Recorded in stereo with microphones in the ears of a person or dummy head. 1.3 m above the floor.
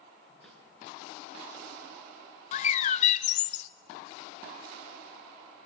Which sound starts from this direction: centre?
A snare drum, at 0.4 s.